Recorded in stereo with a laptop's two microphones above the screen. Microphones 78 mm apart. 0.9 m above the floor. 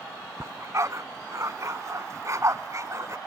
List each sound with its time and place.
0.4 s a dog barking: 40° right (ahead or behind)